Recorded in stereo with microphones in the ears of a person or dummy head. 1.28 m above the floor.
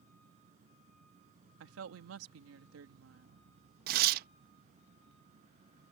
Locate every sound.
0.0 s an insect: 45° right (ahead or behind)
1.6 s a woman speaking: 85° right
3.9 s tearing paper: 60° right (ahead or behind)